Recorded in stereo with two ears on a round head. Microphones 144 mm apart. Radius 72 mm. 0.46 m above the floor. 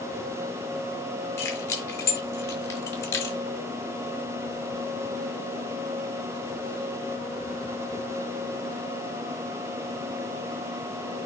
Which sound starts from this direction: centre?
Keys jangling, at 1.4 s.